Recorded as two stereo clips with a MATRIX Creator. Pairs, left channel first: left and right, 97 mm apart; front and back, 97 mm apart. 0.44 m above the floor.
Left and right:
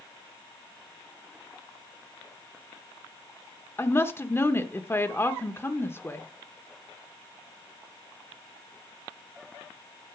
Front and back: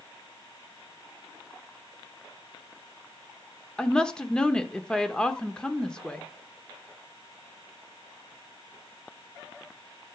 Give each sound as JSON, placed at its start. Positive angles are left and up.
{"t": 3.8, "sound": "a woman speaking", "azimuth_deg": 70, "distance_m": 0.9}